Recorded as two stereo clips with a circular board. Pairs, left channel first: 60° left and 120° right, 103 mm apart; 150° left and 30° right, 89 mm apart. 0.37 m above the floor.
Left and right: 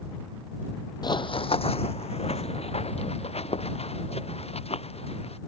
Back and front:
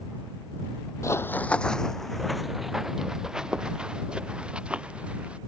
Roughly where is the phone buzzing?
No phone buzzing in this recording.